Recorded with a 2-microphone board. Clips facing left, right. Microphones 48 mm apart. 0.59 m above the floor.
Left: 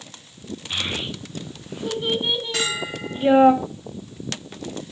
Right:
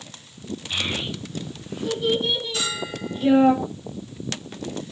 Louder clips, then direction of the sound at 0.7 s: Even; 20° left (ahead or behind).